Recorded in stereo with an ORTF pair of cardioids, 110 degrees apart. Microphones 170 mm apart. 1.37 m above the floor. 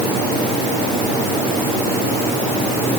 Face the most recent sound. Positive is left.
No sound to turn to.